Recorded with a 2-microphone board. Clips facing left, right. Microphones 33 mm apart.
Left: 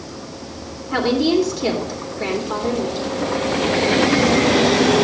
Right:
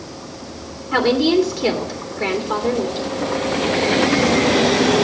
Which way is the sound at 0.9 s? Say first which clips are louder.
Right 2 dB; 10° right (ahead or behind).